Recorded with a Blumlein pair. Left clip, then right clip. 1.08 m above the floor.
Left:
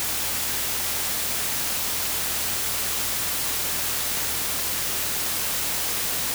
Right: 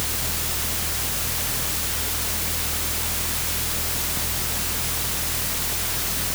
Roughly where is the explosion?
I don't hear an explosion.